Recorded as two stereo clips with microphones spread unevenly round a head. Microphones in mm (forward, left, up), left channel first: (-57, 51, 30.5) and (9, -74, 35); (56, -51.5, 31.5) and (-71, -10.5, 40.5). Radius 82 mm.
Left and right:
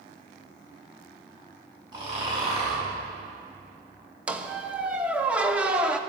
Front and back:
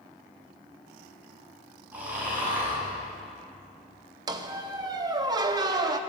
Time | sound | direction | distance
1.9 | snoring | 120° right | 6.5 m
4.3 | a squeak | 140° right | 0.8 m